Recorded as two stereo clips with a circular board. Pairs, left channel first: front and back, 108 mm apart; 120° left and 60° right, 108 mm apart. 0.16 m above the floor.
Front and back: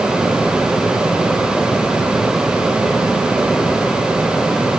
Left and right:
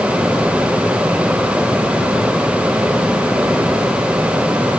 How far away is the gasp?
I don't hear a gasp.